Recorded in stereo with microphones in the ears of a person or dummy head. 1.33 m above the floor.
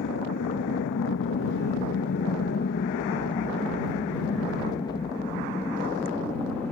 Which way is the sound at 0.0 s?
60° left (ahead or behind).